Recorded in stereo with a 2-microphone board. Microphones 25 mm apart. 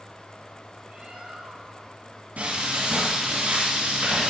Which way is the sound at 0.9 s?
70° right (ahead or behind).